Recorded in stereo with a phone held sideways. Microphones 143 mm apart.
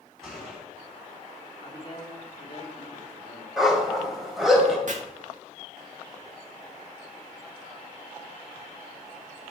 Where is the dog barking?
Centre (ahead or behind), 2.5 m.